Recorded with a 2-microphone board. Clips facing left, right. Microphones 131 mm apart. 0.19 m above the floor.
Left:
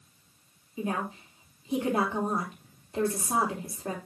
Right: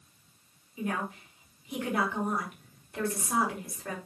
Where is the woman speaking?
25° left (ahead or behind), 4.5 m.